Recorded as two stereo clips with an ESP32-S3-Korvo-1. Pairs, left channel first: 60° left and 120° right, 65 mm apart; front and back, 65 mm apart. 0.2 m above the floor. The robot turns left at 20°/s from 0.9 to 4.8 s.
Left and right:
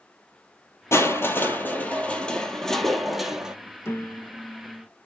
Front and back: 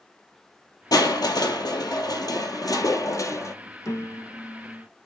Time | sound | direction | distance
0.9 | crushing | 15° left | 1.1 m
3.9 | a piano | 20° left | 0.8 m